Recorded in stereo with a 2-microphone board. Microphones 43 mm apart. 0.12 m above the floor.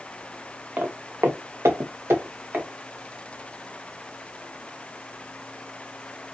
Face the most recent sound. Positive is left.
turn(degrees=-55)  # may be behind; listen again after turning